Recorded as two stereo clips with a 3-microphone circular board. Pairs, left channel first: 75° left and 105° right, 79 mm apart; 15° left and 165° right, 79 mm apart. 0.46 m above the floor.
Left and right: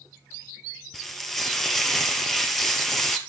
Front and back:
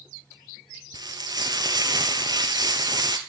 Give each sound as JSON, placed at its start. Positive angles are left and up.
{"t": 0.9, "sound": "frying", "azimuth_deg": 160, "distance_m": 1.5}